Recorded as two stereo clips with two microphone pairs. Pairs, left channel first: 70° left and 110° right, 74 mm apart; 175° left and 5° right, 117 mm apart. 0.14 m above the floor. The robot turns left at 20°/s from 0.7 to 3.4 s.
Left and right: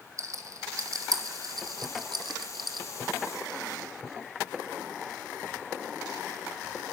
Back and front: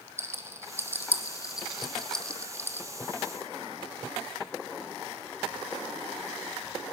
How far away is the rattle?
About 0.9 m.